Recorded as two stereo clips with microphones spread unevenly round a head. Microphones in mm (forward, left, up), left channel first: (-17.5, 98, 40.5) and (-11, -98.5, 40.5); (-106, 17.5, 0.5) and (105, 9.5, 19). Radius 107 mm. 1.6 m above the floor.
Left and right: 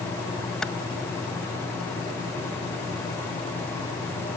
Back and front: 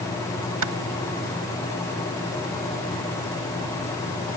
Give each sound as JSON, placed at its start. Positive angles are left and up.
{"t": 0.6, "sound": "a clap", "azimuth_deg": 5}